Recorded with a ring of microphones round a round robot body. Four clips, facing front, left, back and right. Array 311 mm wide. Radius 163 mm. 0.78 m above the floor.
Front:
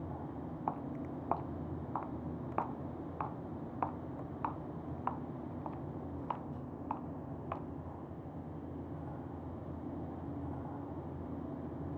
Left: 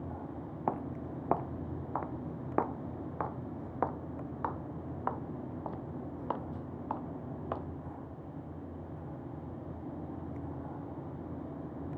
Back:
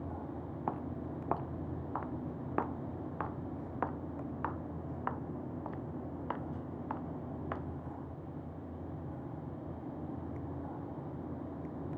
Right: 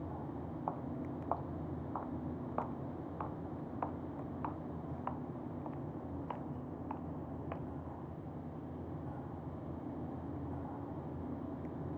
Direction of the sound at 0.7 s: 100° left.